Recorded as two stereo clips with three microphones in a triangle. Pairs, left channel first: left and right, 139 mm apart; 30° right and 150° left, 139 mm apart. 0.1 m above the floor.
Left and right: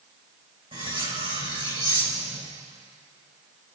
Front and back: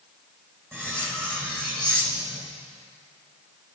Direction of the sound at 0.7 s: 140° right.